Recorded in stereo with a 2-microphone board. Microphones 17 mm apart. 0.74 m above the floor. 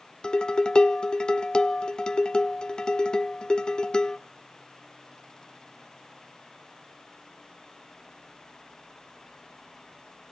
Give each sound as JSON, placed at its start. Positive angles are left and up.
{"t": 0.2, "sound": "dishes clattering", "side_deg": 45, "distance_m": 0.8}